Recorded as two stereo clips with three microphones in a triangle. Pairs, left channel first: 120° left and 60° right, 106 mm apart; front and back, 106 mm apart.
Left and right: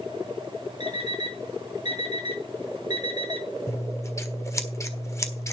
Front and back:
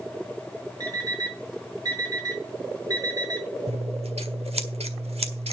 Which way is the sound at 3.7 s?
Straight behind.